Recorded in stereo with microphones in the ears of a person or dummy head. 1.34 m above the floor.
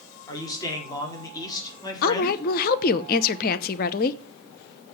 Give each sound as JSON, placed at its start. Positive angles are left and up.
{"t": 0.3, "sound": "a man speaking", "side_deg": 25, "distance_m": 4.5}
{"t": 2.0, "sound": "a woman speaking", "side_deg": 50, "distance_m": 0.7}